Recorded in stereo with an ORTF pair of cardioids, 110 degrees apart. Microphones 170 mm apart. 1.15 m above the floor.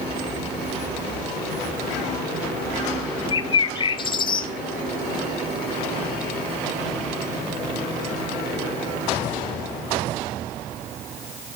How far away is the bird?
About 0.6 m.